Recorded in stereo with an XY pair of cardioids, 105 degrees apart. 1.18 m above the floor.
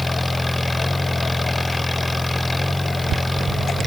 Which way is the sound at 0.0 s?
15° left.